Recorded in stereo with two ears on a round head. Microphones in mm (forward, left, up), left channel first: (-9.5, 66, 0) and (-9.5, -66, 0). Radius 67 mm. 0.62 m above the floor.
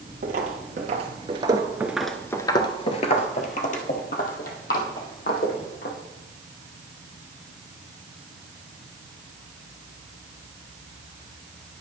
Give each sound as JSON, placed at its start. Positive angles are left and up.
{"t": 0.2, "sound": "footsteps", "side_deg": -60, "distance_m": 1.1}